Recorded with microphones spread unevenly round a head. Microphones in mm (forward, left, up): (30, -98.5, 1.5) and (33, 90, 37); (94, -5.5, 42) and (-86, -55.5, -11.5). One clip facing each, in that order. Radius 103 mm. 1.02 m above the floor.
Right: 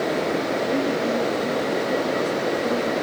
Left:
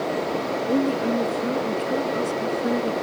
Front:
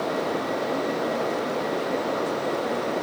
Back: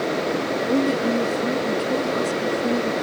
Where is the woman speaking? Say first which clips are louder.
Left 4 dB, back 10 dB; 155° left.